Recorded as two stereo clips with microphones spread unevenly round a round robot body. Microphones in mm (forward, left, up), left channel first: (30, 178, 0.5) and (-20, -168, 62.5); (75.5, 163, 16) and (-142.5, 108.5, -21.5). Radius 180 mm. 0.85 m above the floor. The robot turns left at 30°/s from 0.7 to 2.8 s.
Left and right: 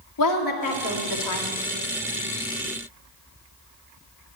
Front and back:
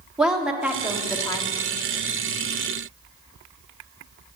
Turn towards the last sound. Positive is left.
turn(degrees=45)